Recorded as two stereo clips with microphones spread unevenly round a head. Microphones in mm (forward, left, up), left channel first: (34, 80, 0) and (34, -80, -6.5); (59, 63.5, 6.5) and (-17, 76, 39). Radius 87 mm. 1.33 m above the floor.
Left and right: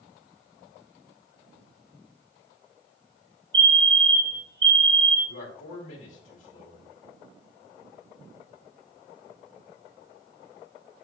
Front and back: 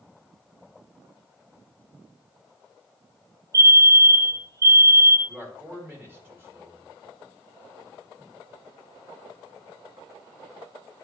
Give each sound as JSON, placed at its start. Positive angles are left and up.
{"t": 3.5, "sound": "a fire alarm", "azimuth_deg": -130, "distance_m": 0.9}
{"t": 5.3, "sound": "a man speaking", "azimuth_deg": 110, "distance_m": 1.8}